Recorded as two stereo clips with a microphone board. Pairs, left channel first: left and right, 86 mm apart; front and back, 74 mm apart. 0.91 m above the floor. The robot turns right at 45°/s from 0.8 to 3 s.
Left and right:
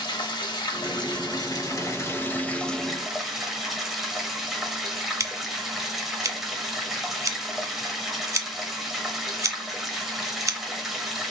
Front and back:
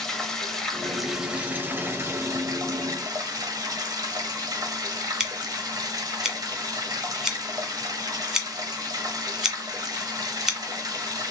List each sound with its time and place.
0.0 s running water: 85° left, 1.0 m; by 11.3 s 175° right, 1.0 m
5.2 s scissors: 95° right, 0.8 m